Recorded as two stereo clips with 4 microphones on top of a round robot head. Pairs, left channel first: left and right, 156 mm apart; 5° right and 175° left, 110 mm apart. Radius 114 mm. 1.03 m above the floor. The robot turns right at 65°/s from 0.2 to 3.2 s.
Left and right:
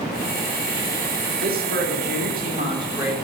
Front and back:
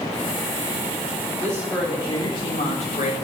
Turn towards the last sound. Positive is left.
turn(degrees=-5)